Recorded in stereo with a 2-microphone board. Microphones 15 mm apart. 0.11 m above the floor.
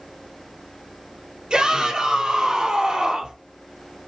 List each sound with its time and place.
1.5 s a shout: 55° right (ahead or behind), 3 m